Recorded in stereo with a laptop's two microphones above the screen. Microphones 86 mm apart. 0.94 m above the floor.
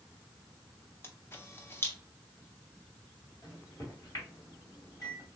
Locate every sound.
1.0 s a camera shutter: 25° left (ahead or behind), 0.6 m
3.4 s a microwave: 50° left (ahead or behind), 2.5 m